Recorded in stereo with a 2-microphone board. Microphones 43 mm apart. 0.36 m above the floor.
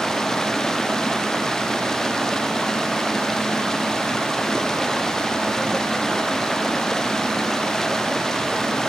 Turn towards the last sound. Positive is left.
turn(degrees=10)  # may be behind; listen again after turning